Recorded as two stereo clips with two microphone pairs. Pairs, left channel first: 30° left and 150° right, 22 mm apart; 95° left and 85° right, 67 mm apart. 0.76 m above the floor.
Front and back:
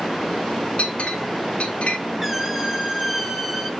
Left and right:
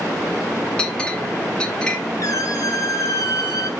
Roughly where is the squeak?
Behind left.